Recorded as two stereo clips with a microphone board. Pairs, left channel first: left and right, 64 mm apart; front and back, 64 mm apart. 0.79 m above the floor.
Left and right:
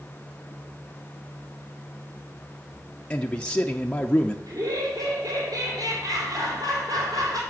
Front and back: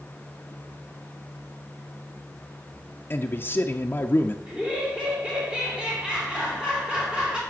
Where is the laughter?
105° right, 3.5 m.